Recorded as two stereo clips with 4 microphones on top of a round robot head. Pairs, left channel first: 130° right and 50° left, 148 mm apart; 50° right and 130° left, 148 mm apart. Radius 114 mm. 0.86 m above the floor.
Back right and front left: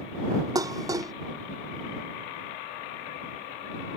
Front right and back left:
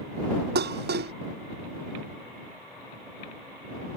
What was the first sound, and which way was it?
Dishes clattering, 120° left.